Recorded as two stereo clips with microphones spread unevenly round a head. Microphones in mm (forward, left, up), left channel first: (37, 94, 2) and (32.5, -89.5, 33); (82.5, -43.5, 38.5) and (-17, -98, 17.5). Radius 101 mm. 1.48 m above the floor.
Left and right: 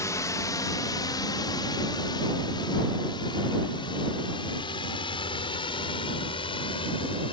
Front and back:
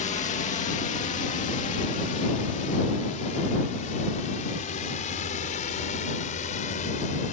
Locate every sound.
0.0 s a drone: 15° left; by 7.3 s 25° left